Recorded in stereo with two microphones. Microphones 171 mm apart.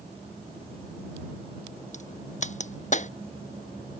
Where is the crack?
45° left (ahead or behind).